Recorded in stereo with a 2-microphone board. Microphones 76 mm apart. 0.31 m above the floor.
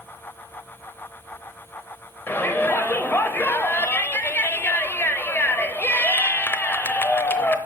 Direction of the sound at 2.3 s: 25° left (ahead or behind).